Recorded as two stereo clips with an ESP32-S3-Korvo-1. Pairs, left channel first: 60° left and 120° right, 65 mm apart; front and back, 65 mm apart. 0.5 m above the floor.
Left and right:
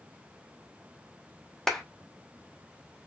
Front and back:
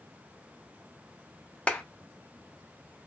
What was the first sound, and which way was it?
A clap, 10° right.